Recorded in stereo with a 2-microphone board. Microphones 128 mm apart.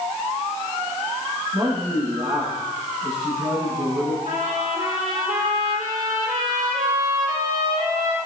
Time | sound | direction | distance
1.5 | a man speaking | 40° right (ahead or behind) | 7 m
4.2 | a trumpet | 80° right | 4.5 m